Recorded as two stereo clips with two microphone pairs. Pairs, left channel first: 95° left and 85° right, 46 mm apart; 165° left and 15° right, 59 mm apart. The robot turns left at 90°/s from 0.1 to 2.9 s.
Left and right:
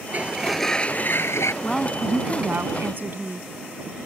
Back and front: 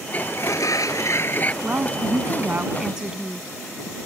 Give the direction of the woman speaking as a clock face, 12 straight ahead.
11 o'clock.